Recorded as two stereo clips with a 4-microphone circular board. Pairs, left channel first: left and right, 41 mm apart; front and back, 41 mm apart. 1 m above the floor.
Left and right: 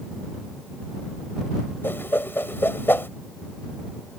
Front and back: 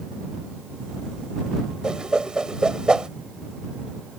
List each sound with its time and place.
1.8 s a whoosh: 110° left